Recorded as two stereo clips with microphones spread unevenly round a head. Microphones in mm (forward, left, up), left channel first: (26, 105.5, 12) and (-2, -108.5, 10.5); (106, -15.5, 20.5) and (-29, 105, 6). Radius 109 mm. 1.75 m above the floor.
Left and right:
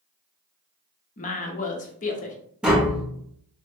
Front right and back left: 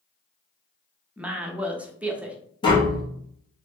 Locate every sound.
1.2 s a woman speaking: 55° left, 0.6 m
2.6 s tapping: 15° right, 0.9 m